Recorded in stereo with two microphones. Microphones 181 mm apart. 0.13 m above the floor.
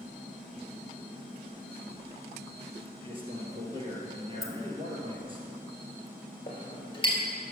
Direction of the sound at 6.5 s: 30° left (ahead or behind).